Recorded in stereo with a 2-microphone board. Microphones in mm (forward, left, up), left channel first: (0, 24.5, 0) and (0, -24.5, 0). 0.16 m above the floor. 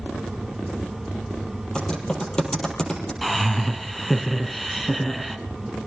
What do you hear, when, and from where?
1.8 s typing on a keyboard: 15° left (ahead or behind), 5 m
3.2 s laughter: centre (ahead or behind), 1.6 m